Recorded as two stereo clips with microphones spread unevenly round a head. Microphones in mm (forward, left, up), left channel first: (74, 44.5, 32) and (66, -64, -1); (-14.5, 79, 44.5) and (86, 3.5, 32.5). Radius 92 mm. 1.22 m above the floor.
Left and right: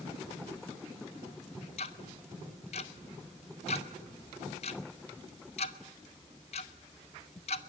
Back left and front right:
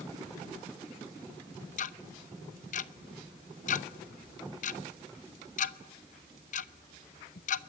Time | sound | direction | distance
1.8 | ticking | 125° left | 0.8 m